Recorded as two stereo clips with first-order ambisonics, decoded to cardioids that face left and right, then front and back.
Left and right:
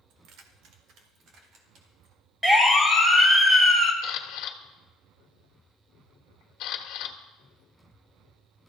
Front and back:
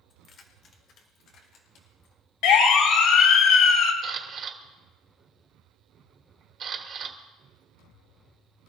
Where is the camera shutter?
120° left, 1.7 m.